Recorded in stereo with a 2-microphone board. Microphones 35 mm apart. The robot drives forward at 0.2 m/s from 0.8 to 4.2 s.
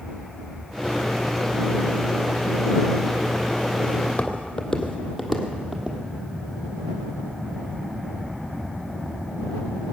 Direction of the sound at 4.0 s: 35° left (ahead or behind).